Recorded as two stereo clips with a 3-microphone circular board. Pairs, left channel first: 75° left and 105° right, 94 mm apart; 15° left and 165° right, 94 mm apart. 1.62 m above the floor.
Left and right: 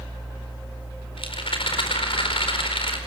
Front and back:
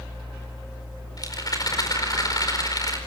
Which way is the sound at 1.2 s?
60° left.